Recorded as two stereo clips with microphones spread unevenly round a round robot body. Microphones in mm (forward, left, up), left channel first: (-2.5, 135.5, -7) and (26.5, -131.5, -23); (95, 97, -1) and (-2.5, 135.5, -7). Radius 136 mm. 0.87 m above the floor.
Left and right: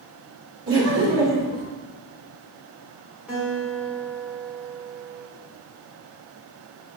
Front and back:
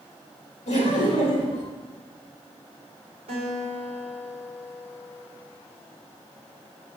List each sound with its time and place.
0.7 s laughter: 40° right, 2 m
3.3 s a guitar: 170° right, 2.0 m